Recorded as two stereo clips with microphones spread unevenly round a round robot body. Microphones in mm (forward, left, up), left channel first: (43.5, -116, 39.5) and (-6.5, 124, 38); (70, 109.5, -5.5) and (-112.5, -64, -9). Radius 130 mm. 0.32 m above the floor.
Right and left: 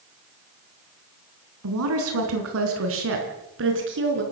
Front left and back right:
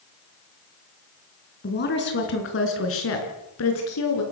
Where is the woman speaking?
90° left, 4 m; by 4.2 s 60° left, 5.5 m.